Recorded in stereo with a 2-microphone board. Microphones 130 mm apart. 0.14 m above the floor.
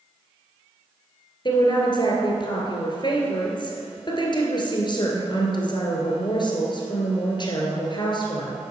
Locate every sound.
1.4 s a woman speaking: 35° left (ahead or behind), 1.9 m